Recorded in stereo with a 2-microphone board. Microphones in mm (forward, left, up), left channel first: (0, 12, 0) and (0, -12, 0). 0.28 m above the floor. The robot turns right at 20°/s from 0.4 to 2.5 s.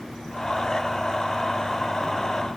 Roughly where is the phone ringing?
No phone ringing in this recording.